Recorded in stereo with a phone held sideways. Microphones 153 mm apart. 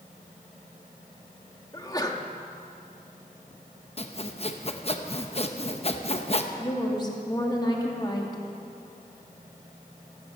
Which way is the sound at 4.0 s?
40° left (ahead or behind).